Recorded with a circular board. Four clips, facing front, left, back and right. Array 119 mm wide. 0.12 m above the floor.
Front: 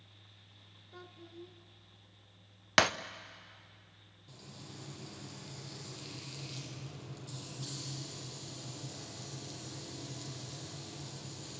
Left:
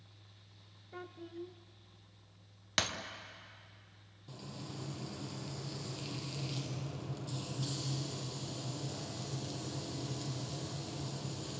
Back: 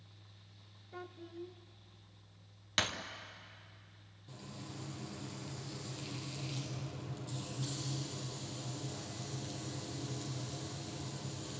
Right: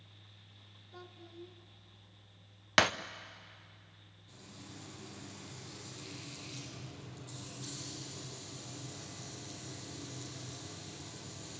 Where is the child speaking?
115° left, 0.7 m.